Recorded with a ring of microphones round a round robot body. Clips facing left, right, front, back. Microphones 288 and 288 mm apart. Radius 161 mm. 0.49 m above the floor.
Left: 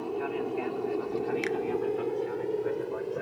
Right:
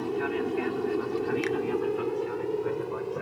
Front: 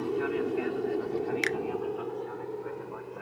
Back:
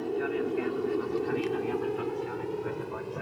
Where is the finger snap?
Straight ahead.